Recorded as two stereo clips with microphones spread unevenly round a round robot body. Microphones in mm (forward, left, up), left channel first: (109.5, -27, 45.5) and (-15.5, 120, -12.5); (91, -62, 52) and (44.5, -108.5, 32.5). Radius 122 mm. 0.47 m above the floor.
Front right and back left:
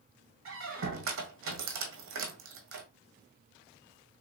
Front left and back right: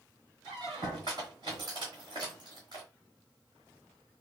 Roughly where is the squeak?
Left.